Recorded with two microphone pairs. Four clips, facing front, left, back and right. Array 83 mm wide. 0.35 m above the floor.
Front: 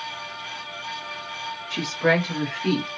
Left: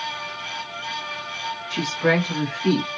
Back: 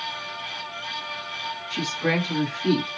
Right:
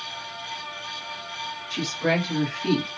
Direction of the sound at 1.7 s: 60° left.